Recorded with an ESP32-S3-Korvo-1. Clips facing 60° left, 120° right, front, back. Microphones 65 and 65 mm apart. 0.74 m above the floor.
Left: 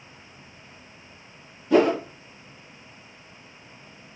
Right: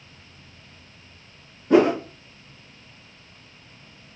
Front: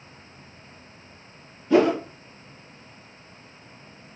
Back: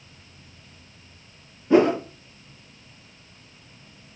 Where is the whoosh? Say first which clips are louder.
Right 2 dB, back 1 dB; 125° right, 1.0 m.